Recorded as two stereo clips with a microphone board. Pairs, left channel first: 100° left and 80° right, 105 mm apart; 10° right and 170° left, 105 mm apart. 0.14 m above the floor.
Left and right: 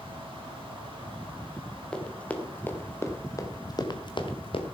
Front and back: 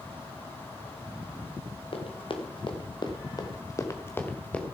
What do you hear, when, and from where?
1.9 s running footsteps: 20° left, 2.5 m; by 4.7 s 70° left, 1.7 m